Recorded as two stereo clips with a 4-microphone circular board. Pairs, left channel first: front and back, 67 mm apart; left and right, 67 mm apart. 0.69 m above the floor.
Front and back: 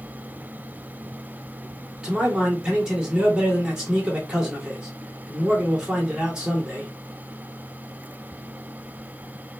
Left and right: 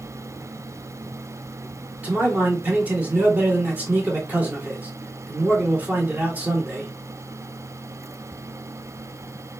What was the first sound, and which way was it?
A man speaking, 115° right.